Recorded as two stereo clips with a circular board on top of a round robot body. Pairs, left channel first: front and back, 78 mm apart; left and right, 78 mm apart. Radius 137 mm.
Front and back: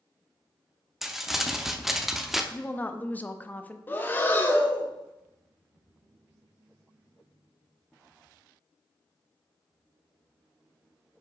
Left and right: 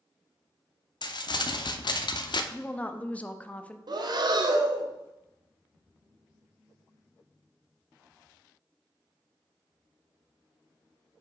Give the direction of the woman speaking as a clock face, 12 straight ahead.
11 o'clock.